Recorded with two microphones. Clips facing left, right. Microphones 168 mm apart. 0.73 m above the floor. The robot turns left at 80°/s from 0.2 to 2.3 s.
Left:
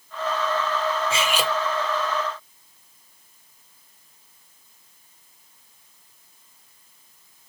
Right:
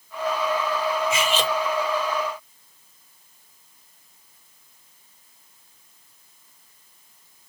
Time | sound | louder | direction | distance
1.1 | cutlery clinking | right 1 dB | 35° left | 0.7 m